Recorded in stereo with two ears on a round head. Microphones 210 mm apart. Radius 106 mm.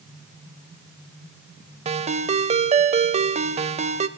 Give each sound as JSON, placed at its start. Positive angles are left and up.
{"t": 1.9, "sound": "a ringtone", "side_deg": -25, "distance_m": 0.8}